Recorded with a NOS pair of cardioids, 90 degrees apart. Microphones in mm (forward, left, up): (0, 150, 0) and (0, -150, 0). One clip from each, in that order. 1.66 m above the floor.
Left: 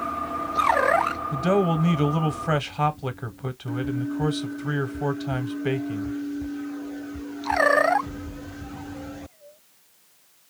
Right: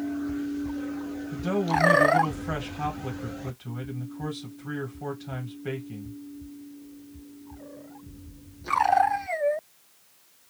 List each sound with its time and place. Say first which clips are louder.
1.3 s a man speaking: left 2 dB; 50° left, 0.9 m